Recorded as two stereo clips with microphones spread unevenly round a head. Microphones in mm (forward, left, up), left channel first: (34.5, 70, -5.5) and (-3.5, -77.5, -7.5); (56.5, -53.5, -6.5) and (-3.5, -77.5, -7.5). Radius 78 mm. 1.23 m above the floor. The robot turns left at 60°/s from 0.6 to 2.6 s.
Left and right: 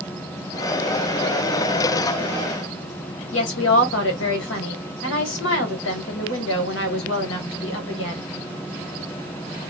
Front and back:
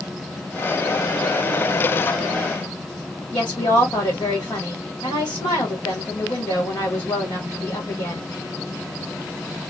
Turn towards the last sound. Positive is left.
turn(degrees=85)